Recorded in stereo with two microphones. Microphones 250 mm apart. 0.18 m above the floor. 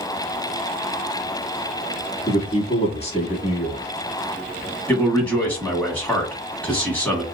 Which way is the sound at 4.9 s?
5° left (ahead or behind).